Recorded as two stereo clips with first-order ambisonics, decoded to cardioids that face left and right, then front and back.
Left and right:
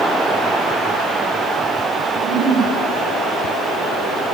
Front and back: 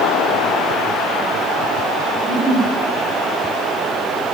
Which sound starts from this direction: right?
A giggle, at 2.1 s.